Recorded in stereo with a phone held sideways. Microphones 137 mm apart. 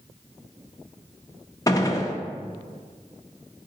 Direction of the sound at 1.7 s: 25° left (ahead or behind).